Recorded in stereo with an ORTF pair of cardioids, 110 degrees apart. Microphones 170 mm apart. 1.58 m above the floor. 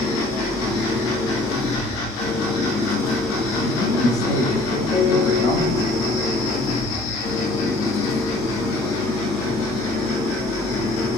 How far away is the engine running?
About 1.7 m.